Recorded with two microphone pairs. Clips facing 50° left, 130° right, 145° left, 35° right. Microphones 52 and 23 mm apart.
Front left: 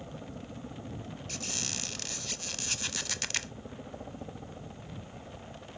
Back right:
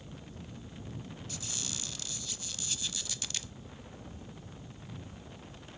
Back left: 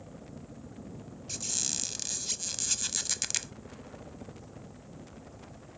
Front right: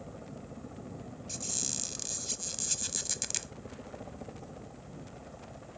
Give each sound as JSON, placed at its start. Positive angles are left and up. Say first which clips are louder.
{"t": 0.0, "sound": "a helicopter", "louder": "front left 5 dB, front right 2 dB", "azimuth_deg": 15}
{"t": 1.3, "sound": "a squeak", "louder": "front left 5 dB, back left 3 dB", "azimuth_deg": 75}